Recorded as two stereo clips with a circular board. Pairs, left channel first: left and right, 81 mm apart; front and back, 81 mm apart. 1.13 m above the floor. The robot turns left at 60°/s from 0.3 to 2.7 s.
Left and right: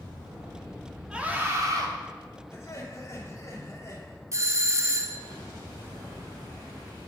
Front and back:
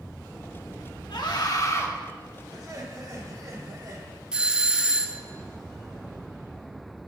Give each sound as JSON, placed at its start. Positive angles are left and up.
{"t": 1.1, "sound": "a scream", "azimuth_deg": -10, "distance_m": 1.9}
{"t": 2.5, "sound": "laughter", "azimuth_deg": 150, "distance_m": 2.5}
{"t": 4.3, "sound": "a doorbell", "azimuth_deg": -105, "distance_m": 0.6}